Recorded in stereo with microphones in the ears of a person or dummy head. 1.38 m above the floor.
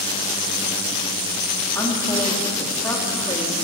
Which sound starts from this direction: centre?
A woman speaking, at 1.8 s.